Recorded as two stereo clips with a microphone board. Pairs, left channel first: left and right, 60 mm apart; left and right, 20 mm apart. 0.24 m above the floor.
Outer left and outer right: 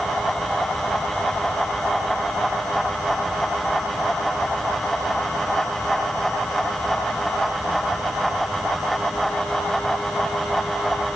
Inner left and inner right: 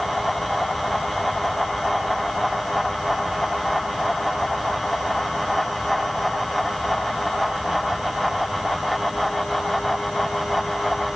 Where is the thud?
I don't hear a thud.